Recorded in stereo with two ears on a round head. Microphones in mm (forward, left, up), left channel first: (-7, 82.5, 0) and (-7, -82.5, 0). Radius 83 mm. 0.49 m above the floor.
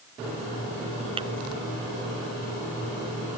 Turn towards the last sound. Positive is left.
turn(degrees=-30)  # may be behind; listen again after turning